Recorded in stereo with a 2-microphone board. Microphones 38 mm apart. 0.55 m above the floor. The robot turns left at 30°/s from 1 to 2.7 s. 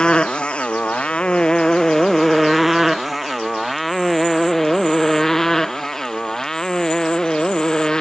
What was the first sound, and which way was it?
A motorcycle, 25° left (ahead or behind).